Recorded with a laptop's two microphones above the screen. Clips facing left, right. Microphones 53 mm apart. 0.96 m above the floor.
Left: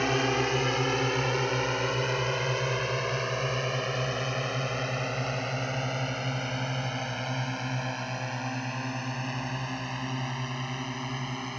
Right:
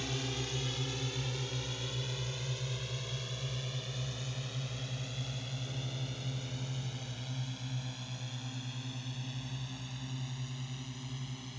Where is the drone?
60° left (ahead or behind).